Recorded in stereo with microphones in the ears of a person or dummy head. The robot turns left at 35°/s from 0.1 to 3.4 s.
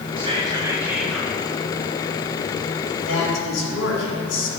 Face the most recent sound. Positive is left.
turn(degrees=80)